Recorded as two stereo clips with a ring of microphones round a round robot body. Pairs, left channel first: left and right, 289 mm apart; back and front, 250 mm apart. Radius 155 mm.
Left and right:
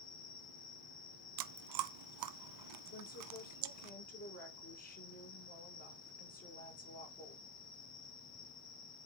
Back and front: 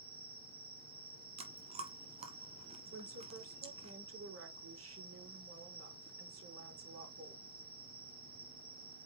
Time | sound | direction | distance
0.0 | an insect | 50° left | 1.7 m
1.4 | chewing | 70° right | 0.7 m
2.9 | a woman speaking | 30° left | 4.5 m